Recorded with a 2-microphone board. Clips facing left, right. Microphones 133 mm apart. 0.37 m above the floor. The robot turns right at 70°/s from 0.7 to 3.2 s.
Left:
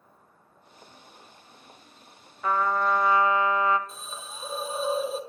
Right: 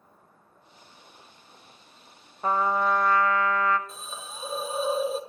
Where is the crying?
No crying in this recording.